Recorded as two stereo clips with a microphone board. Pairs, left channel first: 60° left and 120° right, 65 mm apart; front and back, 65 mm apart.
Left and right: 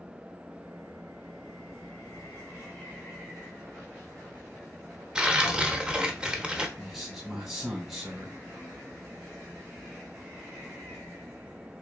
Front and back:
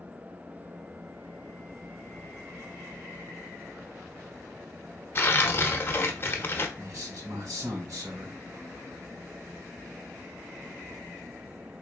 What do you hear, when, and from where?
5.2 s tearing paper: 45° right, 0.7 m
6.8 s a man speaking: 160° left, 2.5 m